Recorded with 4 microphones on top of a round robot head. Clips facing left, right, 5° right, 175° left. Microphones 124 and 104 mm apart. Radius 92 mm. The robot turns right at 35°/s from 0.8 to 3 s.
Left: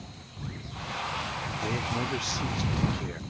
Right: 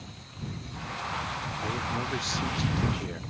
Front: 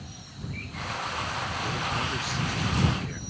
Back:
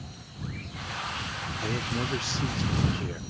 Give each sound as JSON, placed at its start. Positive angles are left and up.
{"t": 1.6, "sound": "a man speaking", "azimuth_deg": 140}